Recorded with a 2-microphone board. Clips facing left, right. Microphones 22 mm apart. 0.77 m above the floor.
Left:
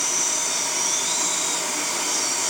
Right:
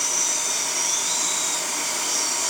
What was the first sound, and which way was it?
Only background noise.